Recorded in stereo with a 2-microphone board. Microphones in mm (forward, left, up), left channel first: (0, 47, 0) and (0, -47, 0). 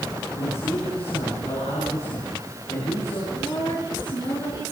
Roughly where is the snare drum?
No snare drum in this recording.